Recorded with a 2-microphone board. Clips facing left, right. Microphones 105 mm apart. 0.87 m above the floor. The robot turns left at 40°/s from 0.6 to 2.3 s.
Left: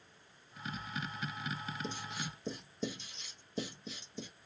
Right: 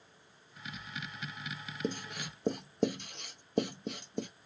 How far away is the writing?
About 0.6 m.